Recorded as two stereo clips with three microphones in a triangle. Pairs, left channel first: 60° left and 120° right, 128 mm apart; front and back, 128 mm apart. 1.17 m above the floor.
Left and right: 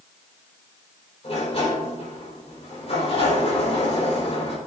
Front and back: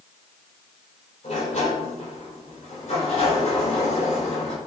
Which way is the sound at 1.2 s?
20° left.